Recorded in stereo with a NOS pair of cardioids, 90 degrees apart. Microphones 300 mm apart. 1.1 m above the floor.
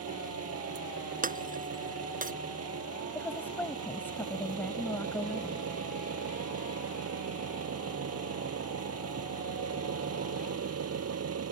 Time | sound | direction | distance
0.0 | an engine running | 50° right | ?
1.2 | breaking glass | 25° right | ?
3.1 | a woman speaking | 5° left | ?